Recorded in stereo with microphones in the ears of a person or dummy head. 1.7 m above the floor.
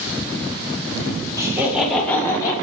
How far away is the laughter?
About 2 m.